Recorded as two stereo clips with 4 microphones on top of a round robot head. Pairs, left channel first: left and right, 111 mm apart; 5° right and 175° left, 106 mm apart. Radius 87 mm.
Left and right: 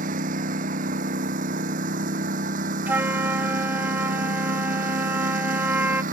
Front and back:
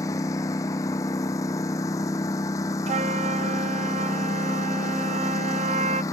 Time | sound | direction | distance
0.0 | a lawn mower | 75° right | ?
2.9 | a flute | 165° right | ?